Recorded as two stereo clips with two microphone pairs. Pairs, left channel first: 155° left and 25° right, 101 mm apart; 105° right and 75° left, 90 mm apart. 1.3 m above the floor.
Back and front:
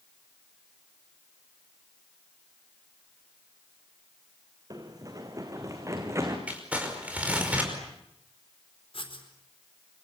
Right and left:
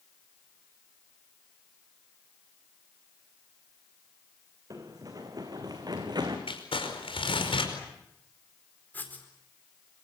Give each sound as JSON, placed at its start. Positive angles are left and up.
{"t": 4.7, "sound": "running footsteps", "azimuth_deg": 30, "distance_m": 3.5}
{"t": 6.5, "sound": "crumpling", "azimuth_deg": -100, "distance_m": 5.0}
{"t": 8.9, "sound": "writing", "azimuth_deg": -175, "distance_m": 4.5}